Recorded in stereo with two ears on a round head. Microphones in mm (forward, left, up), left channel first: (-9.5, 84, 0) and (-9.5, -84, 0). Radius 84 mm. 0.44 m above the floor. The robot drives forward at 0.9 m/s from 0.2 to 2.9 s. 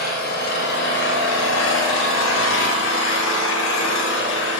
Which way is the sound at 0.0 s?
50° left (ahead or behind).